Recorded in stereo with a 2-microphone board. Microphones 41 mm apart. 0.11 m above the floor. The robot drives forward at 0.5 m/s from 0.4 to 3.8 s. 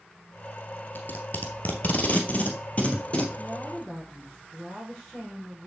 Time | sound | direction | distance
0.9 | tape being pulled | 50° left (ahead or behind) | 1.5 m
3.4 | a woman speaking | 10° left (ahead or behind) | 4.5 m